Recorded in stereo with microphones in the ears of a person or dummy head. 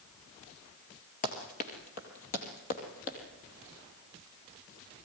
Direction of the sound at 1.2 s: 40° left (ahead or behind).